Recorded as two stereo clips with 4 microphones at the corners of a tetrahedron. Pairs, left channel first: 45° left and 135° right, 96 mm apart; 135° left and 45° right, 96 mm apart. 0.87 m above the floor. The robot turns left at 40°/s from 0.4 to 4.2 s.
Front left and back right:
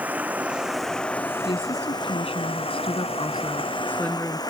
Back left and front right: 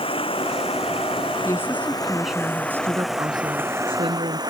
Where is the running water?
150° left; by 4.5 s straight ahead.